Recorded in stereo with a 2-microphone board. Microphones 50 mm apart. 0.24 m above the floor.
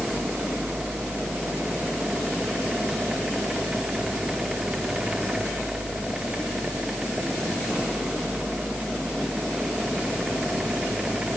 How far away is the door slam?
I don't hear a door slam.